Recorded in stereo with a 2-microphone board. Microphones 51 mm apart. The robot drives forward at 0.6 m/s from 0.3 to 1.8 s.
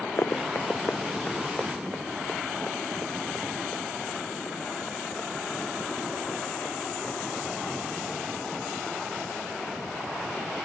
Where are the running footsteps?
75° left (ahead or behind); by 10.5 s 30° left (ahead or behind).